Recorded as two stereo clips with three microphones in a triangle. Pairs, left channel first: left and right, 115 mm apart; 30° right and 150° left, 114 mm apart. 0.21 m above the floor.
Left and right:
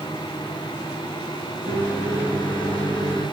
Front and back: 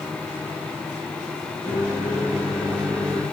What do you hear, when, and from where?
1.7 s a microwave: 120° left, 0.8 m